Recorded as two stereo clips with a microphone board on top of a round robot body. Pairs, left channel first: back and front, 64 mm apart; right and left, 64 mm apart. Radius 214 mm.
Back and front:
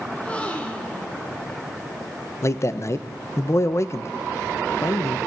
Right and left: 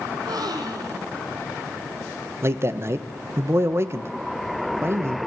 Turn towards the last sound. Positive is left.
turn(degrees=135)